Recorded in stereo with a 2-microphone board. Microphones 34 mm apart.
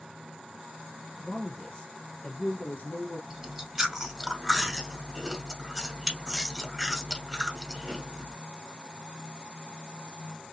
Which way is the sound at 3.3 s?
10° right (ahead or behind).